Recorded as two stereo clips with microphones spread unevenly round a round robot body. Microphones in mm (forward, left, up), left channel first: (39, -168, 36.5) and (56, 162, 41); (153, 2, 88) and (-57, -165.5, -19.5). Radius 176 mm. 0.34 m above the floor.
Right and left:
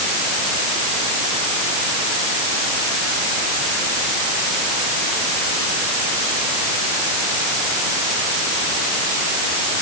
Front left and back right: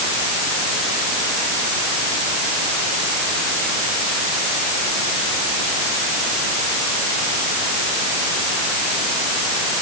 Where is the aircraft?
No aircraft in this recording.